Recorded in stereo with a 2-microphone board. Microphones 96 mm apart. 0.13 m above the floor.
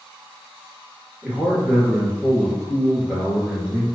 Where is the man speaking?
10° right (ahead or behind), 1.9 m.